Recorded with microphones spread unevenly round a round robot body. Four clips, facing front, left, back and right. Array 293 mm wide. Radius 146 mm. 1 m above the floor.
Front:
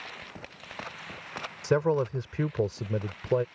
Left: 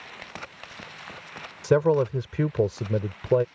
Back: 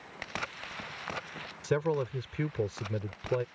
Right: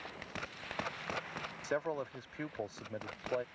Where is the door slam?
I don't hear a door slam.